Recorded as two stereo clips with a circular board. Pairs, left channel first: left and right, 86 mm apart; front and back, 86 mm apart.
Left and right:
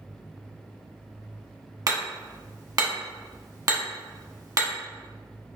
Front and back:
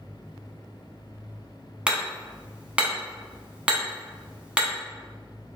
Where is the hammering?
110° right, 0.8 m.